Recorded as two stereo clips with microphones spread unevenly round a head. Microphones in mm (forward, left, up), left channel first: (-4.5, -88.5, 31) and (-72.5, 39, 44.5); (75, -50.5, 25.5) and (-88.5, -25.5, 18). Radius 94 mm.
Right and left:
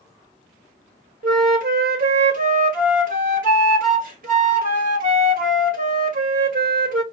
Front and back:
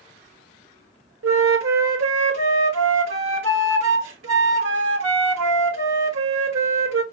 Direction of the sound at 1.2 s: 145° left.